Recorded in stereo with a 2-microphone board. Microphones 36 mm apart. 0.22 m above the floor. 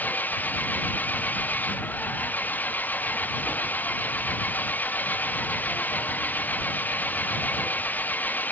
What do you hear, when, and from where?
0.0 s an engine running: 55° left (ahead or behind)